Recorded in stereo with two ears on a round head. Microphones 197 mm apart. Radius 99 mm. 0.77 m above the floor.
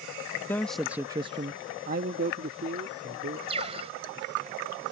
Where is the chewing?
I don't hear chewing.